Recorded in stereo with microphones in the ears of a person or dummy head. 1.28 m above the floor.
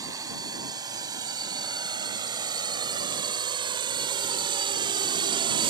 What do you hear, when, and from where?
0.0 s a drone: 25° right (ahead or behind); by 5.7 s 30° right (ahead or behind)